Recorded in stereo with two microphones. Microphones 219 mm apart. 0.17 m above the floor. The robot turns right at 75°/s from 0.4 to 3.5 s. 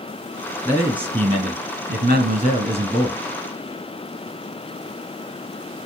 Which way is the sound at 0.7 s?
165° left.